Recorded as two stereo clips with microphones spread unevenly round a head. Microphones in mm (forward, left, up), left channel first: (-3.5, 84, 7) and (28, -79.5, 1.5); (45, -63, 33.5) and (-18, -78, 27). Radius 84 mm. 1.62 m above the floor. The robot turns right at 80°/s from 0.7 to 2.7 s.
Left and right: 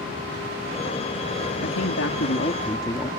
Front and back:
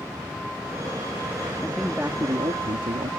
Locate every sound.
1.6 s a man speaking: 85° left; by 3.1 s 170° left